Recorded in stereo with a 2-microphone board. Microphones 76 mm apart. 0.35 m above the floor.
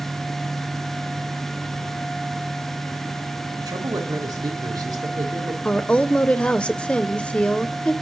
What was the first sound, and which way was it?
A man speaking, 60° right (ahead or behind).